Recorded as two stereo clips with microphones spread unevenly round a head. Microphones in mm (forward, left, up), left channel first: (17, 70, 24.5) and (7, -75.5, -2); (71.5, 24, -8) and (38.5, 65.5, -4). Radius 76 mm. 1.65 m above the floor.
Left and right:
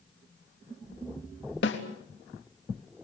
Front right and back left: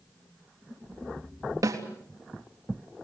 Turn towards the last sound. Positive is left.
turn(degrees=105)